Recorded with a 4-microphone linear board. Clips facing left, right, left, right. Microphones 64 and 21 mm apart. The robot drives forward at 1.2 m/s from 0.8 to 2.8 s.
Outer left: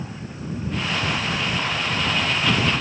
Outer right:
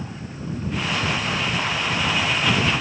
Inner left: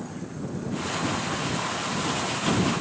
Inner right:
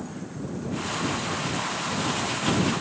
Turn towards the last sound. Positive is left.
No sound to turn to.